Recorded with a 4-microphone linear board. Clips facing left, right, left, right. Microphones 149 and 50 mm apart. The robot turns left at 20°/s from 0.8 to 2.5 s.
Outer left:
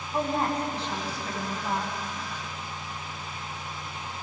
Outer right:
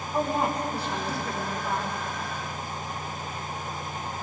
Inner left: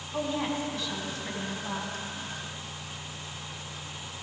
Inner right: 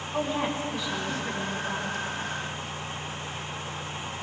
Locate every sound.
0.1 s a woman speaking: 10° right (ahead or behind), 6.5 m; by 2.0 s 10° left (ahead or behind), 6.5 m